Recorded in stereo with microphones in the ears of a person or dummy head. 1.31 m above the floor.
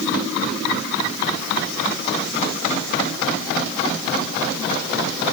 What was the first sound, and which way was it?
Only background noise.